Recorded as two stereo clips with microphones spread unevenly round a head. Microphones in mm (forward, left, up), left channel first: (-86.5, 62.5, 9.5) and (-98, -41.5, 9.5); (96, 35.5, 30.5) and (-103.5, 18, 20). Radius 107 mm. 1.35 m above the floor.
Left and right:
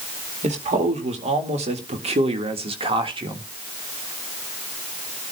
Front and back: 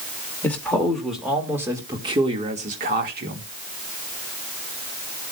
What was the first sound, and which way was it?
A man speaking, 75° right.